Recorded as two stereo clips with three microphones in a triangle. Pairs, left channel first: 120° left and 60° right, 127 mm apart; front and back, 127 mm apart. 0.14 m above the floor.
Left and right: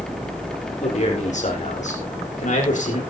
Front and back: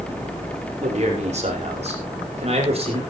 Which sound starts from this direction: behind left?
A man speaking, at 0.8 s.